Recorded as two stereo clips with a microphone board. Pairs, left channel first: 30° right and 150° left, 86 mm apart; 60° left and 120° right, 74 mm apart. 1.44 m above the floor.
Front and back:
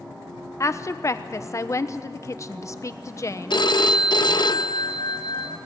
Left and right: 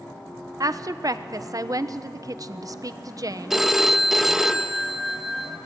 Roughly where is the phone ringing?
Ahead right.